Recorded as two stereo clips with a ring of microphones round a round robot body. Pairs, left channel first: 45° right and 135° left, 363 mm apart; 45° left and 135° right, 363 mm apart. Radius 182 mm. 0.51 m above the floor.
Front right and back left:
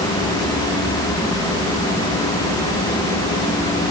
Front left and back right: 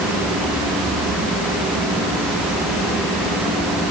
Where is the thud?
No thud in this recording.